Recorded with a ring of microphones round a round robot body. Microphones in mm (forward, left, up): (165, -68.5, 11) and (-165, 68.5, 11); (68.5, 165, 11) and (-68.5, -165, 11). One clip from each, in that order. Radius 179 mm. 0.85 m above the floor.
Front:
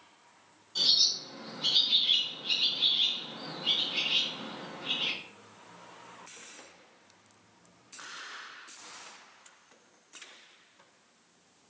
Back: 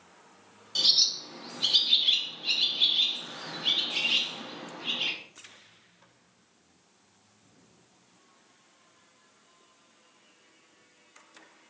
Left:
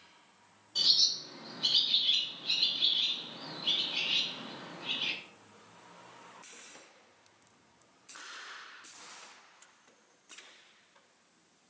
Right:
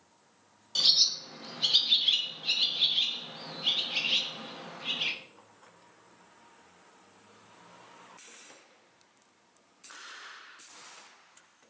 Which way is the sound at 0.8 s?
150° right.